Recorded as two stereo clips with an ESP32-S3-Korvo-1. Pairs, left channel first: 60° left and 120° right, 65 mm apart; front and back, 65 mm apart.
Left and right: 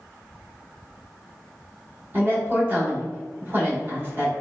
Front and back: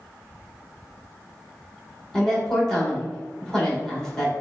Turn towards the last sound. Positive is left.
turn(degrees=-75)